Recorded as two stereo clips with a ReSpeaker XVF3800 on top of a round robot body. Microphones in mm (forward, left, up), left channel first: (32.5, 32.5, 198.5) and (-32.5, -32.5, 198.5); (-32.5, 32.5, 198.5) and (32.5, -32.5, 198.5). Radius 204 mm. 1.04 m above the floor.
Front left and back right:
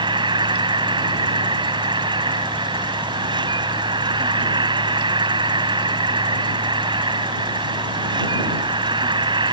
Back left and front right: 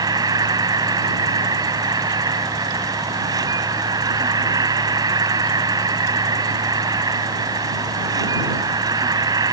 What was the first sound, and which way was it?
An insect, 95° right.